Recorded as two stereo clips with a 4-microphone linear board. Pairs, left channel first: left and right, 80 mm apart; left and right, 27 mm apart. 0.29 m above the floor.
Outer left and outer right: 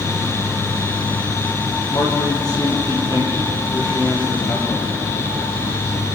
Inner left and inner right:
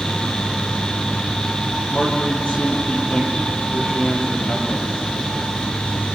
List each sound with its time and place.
1.9 s a man speaking: 50° left (ahead or behind), 6 m; by 5.0 s 55° left (ahead or behind), 8.5 m